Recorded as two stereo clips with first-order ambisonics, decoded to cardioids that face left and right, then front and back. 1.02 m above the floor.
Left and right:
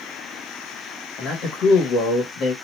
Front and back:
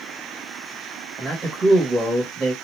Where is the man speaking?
120° left, 1.2 m.